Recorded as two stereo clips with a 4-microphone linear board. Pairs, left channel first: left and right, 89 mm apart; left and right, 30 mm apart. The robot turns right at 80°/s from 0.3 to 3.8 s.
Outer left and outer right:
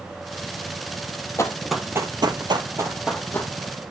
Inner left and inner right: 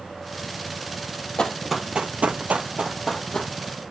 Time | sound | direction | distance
1.4 | running footsteps | 35° left (ahead or behind) | 1.8 m